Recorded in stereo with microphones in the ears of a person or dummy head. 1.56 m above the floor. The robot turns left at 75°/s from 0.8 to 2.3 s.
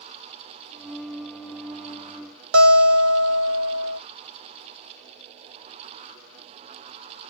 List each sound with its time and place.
2.5 s a guitar: 75° right (ahead or behind), 1.2 m